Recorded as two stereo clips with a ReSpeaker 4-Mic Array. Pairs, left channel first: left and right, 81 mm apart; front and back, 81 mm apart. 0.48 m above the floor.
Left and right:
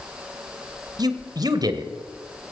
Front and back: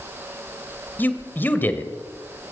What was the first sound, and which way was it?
A man speaking, 65° right.